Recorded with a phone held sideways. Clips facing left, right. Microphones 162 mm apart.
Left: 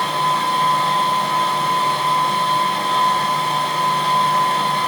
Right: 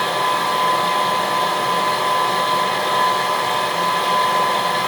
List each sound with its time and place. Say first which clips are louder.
0.0 s a machine running: even; 70° right (ahead or behind), 1.5 m